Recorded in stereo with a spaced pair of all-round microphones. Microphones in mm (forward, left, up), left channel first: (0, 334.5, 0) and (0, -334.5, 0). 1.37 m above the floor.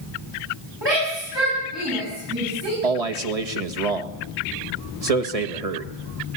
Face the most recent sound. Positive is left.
turn(degrees=-65)  # may be behind; listen again after turning